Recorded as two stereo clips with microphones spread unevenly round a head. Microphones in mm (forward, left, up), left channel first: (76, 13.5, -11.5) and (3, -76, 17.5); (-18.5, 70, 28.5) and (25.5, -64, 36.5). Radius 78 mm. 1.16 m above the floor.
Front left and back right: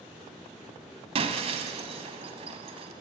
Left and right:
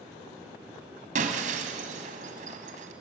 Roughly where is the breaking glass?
Right.